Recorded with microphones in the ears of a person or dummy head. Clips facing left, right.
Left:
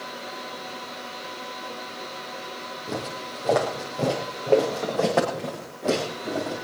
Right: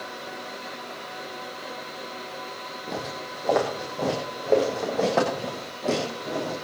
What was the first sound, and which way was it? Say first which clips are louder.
Footsteps: left 1 dB; 5° left (ahead or behind).